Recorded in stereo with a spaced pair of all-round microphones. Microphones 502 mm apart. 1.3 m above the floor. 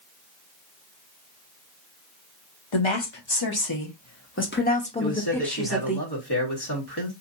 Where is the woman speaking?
65° left (ahead or behind), 1.2 m; by 6.0 s 5° right (ahead or behind), 1.7 m.